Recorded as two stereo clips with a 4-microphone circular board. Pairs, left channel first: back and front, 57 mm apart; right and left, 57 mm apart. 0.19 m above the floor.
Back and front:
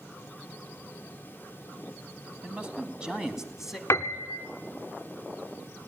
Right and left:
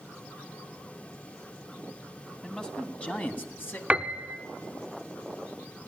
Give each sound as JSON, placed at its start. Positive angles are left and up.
{"t": 2.4, "sound": "a man speaking", "azimuth_deg": -25, "distance_m": 1.5}
{"t": 3.9, "sound": "a piano", "azimuth_deg": 155, "distance_m": 0.5}